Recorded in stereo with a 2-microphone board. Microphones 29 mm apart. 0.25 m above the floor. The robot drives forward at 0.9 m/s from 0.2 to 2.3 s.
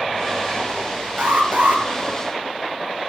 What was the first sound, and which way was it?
An alarm, 70° right (ahead or behind).